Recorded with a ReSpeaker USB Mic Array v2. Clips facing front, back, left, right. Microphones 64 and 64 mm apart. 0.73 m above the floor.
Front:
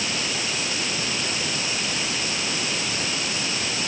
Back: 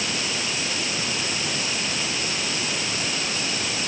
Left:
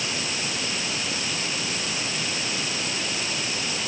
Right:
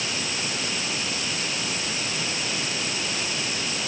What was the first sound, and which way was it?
Only background noise.